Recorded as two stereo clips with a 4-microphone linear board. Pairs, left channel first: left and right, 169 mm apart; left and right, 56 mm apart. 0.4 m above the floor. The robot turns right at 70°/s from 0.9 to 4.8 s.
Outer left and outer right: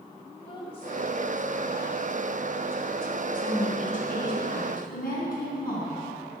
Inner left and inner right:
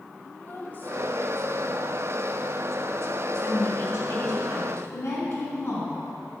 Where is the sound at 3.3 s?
10° left, 3.5 m; by 6.0 s 110° left, 3.5 m.